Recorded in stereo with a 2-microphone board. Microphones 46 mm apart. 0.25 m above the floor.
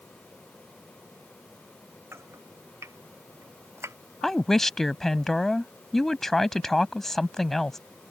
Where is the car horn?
No car horn in this recording.